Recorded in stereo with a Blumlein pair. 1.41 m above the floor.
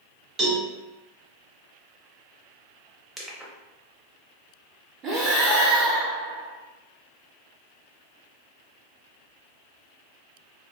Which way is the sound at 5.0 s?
25° right.